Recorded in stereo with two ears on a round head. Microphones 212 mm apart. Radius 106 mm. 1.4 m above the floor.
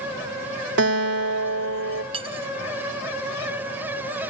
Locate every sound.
0.8 s a guitar: 55° right (ahead or behind), 3.5 m
2.1 s cutlery clinking: 25° right (ahead or behind), 0.8 m